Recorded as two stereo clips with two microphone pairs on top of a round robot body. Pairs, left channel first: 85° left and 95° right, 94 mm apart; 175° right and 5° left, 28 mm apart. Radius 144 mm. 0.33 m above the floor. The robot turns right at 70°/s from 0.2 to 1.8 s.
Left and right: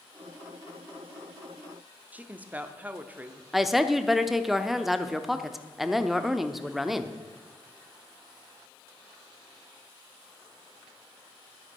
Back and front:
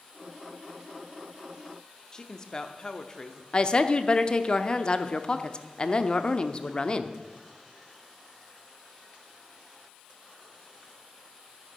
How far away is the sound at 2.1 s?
About 1.1 m.